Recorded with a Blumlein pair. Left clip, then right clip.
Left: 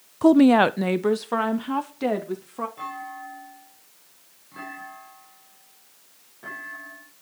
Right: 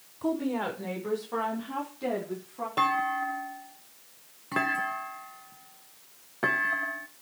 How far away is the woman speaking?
About 0.7 m.